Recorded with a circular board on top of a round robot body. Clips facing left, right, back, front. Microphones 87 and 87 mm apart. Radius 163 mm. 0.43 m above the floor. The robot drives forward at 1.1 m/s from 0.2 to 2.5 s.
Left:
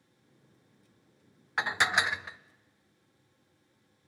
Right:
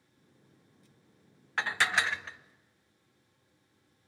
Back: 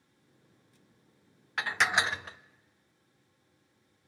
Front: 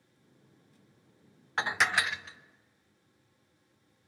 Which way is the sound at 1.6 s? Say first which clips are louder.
Left 1 dB, even; 25° left.